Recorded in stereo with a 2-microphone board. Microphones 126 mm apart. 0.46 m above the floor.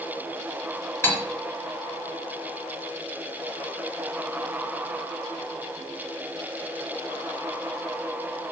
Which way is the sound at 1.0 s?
20° left (ahead or behind).